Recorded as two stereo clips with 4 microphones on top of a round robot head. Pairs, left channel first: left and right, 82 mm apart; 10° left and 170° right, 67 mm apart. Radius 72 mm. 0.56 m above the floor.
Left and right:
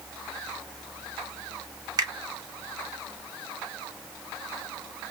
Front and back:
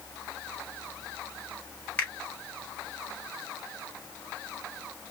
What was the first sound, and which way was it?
A finger snap, 60° right.